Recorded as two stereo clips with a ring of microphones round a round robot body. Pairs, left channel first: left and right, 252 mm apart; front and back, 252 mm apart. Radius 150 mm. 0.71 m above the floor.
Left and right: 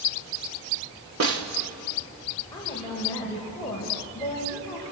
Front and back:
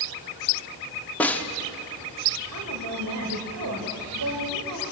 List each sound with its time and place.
1.2 s a snare drum: 85° right, 1.9 m
2.5 s a woman speaking: 170° left, 3.5 m